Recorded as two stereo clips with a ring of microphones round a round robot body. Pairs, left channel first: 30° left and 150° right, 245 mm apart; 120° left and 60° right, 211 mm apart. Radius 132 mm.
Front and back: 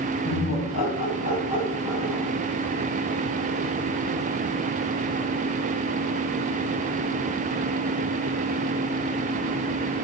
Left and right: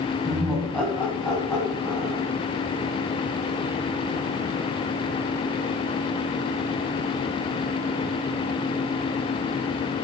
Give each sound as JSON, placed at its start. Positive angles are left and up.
{"t": 0.2, "sound": "laughter", "azimuth_deg": 35, "distance_m": 2.5}